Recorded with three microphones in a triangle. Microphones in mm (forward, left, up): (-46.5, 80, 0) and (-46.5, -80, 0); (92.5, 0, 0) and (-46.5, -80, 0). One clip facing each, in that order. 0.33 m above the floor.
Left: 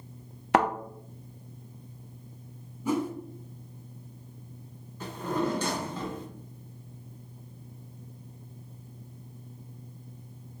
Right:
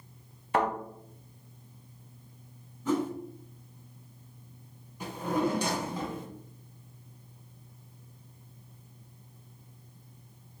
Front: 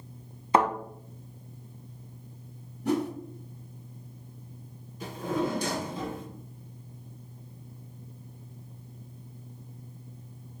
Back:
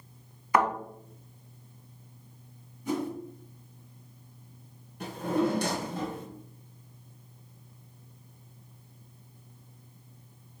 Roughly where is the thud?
Left.